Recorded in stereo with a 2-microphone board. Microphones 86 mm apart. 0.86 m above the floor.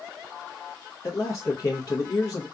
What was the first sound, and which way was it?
A man speaking, 45° left (ahead or behind).